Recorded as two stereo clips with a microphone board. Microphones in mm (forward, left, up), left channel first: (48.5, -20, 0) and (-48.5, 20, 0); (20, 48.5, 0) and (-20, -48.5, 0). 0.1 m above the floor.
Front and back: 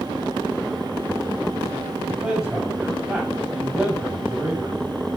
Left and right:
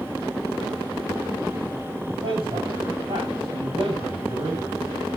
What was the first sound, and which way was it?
A man speaking, 120° right.